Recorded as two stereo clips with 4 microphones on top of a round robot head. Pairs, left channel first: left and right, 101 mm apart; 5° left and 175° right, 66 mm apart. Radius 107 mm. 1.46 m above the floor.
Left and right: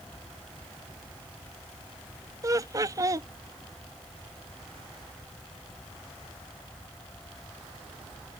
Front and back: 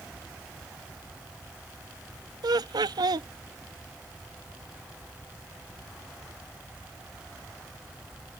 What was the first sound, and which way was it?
Laughter, 150° right.